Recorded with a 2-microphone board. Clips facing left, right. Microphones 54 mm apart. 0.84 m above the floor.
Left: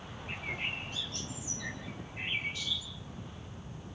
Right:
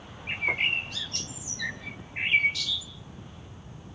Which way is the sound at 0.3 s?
80° right.